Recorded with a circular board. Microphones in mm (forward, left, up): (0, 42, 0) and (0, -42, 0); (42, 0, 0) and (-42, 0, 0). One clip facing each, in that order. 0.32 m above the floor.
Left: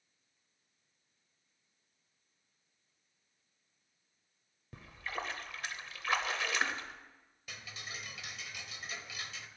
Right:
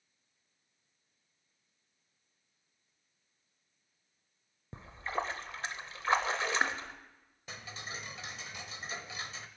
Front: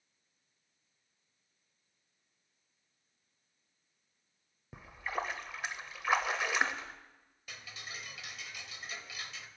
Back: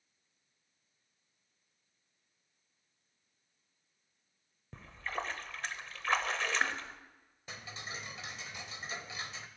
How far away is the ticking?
About 0.7 m.